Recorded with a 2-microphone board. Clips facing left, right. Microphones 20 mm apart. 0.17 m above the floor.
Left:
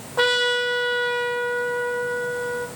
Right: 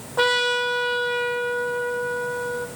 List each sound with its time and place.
0.2 s a trumpet: 5° left (ahead or behind), 0.8 m